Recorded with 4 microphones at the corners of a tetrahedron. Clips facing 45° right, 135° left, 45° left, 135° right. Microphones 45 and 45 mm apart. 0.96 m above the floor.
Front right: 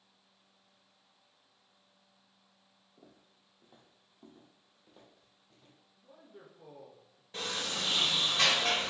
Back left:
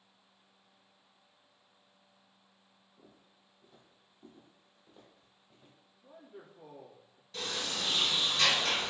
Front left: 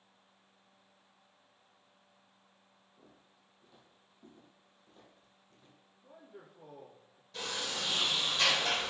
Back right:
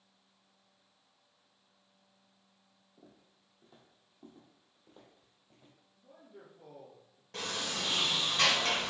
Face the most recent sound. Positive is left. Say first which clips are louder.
# front right 1 dB, back right 1 dB
turn(degrees=-100)